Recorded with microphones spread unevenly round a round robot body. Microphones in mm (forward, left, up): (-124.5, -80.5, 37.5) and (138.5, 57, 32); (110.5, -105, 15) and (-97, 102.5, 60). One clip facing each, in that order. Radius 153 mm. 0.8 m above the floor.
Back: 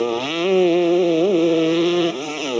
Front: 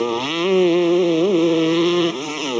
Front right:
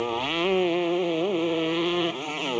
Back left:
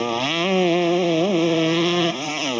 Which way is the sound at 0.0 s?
110° left.